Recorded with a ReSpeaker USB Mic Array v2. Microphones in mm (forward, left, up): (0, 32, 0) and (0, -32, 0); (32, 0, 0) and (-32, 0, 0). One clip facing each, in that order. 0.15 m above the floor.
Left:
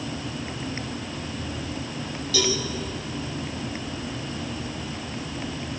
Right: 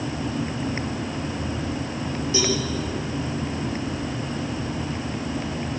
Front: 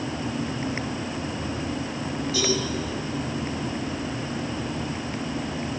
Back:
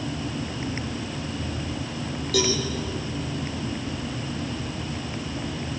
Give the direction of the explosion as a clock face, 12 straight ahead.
No explosion in this recording.